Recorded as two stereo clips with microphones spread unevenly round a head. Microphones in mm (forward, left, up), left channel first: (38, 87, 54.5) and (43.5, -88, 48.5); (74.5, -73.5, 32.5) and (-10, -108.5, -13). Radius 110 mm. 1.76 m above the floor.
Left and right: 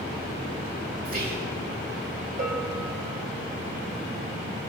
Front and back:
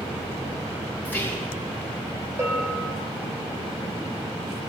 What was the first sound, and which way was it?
Whispering, 50° right.